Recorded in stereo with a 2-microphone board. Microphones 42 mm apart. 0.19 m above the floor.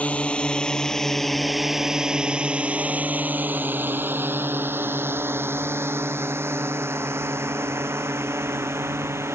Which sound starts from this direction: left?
A drone, at 0.0 s.